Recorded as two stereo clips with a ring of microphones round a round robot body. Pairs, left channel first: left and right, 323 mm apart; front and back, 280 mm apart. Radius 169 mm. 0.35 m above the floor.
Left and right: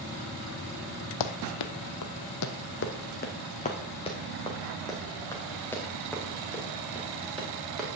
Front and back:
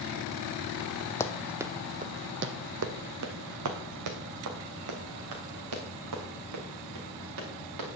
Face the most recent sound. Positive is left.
turn(degrees=180)